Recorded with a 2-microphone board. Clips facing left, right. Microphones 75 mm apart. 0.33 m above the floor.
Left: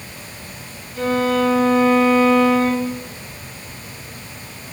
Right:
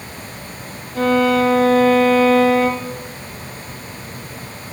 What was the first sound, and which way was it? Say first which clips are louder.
A violin: right 3 dB; 60° right (ahead or behind).